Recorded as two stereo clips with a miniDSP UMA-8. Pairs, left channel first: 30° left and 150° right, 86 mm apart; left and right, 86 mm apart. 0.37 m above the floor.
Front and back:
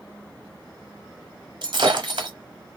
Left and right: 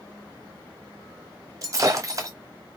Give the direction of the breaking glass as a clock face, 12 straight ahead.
5 o'clock.